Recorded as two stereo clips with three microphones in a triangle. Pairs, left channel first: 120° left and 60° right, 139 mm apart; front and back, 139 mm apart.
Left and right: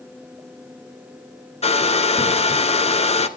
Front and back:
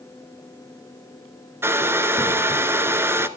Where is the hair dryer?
115° left, 0.7 m.